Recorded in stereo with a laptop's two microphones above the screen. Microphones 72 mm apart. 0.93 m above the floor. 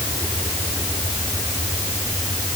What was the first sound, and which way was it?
Only background noise.